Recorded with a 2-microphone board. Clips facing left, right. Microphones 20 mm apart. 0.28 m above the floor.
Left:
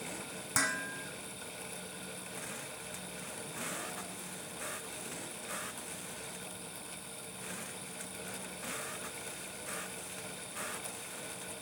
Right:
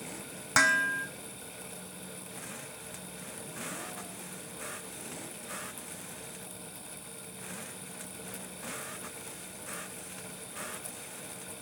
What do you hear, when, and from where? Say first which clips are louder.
0.6 s dishes clattering: right 9 dB; 30° right (ahead or behind), 1.8 m